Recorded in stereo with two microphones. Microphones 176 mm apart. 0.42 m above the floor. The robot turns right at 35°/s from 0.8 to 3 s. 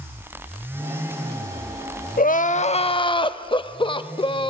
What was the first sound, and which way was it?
Crying, 55° left (ahead or behind).